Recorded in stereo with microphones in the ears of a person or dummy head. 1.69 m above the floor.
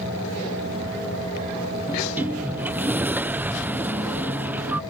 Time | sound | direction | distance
1.9 | a sliding door | 10° right (ahead or behind) | ?